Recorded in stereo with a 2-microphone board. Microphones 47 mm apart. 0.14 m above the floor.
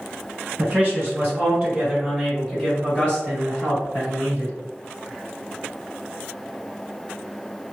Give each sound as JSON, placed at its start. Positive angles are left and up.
{"t": 0.6, "sound": "a man speaking", "side_deg": -30, "distance_m": 1.6}